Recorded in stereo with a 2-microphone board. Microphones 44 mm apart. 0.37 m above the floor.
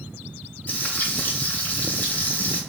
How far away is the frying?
About 0.7 m.